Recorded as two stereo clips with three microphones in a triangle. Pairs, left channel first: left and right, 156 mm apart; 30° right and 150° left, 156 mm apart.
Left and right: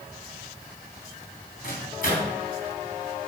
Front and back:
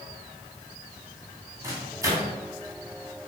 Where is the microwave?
80° left, 3 m.